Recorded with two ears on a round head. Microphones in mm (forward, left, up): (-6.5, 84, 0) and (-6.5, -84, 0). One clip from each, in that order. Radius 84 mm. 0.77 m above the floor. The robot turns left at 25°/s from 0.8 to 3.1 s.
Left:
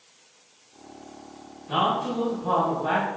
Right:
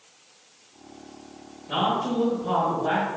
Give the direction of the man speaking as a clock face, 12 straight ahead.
6 o'clock.